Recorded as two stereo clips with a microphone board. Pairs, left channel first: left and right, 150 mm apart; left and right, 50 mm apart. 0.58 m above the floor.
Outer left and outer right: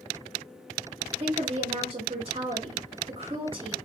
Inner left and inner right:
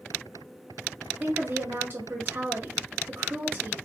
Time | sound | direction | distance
1.2 | a woman speaking | 35° right (ahead or behind) | 0.9 m